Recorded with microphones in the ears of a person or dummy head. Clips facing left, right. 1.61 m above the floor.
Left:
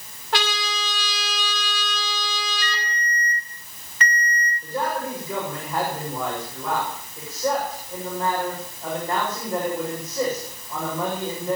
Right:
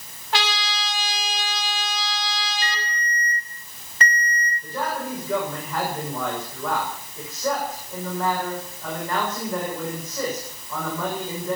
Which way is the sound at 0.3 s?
60° left (ahead or behind).